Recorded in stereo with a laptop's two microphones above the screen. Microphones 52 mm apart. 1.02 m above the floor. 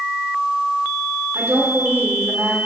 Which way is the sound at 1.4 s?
55° right (ahead or behind).